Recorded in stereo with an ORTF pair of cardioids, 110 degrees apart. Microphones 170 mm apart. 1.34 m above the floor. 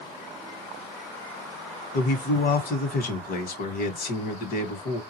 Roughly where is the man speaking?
Ahead left.